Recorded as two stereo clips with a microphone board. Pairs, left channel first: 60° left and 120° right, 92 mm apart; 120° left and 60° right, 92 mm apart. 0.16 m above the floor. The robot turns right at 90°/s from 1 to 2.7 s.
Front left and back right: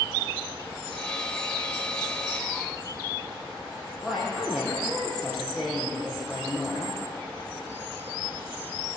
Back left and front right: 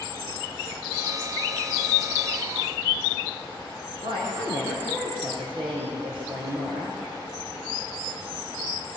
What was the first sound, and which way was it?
A woman speaking, 30° right.